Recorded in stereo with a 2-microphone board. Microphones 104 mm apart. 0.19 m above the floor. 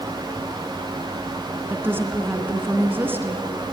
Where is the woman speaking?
20° right (ahead or behind), 2.5 m.